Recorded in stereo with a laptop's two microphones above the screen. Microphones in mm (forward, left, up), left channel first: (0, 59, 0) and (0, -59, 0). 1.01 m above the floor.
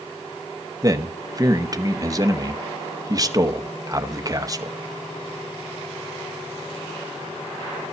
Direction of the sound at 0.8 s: 30° right (ahead or behind).